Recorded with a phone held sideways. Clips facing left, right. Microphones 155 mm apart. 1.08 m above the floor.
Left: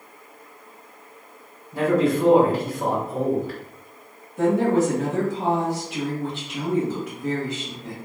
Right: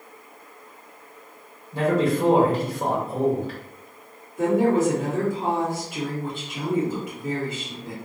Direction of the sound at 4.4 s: 75° left (ahead or behind).